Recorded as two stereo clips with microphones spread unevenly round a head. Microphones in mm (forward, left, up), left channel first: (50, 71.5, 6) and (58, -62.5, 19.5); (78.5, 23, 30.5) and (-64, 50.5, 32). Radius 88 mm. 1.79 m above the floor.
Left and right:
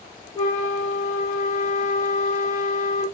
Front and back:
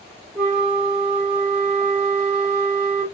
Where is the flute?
105° left, 1.2 m.